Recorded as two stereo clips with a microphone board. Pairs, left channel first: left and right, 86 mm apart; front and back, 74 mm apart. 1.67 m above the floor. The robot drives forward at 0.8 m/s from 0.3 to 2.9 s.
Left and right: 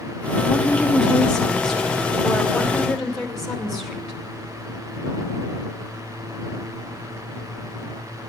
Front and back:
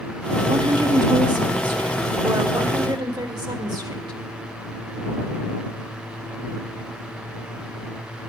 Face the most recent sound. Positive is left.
turn(degrees=175)